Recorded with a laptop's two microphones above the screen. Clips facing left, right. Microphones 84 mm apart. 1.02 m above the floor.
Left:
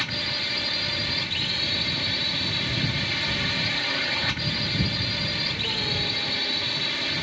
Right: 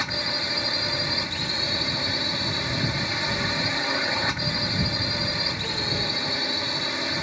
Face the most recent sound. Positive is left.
turn(degrees=-20)  # may be behind; listen again after turning